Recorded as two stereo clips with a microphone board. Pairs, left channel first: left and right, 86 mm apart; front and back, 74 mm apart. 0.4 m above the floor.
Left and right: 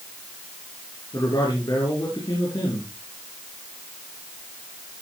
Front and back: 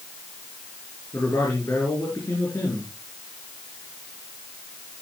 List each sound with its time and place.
1.1 s a man speaking: 50° left, 5.5 m